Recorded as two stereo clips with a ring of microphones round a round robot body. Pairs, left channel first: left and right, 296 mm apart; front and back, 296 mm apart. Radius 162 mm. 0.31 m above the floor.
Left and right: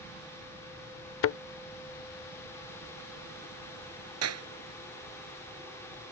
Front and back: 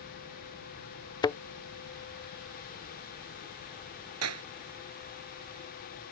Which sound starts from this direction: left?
A thud, at 1.2 s.